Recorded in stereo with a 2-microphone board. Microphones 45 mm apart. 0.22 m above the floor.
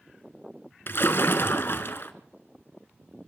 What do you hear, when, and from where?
0.9 s a splash: 50° left (ahead or behind), 0.9 m